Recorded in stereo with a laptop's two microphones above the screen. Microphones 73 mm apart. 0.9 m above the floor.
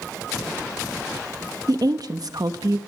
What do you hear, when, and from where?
1.7 s a woman speaking: 60° right (ahead or behind), 1.0 m